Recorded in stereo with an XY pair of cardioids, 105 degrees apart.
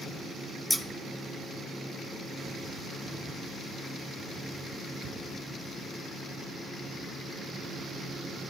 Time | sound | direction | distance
0.7 | scissors | 10° left | 0.9 m